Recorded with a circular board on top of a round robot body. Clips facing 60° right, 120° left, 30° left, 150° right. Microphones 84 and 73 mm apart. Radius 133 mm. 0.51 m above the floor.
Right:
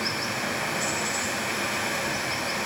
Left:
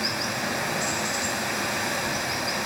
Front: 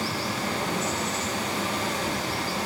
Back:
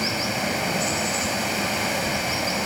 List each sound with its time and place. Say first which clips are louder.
0.0 s running water: left 1 dB, back 3 dB; 155° right, 6 m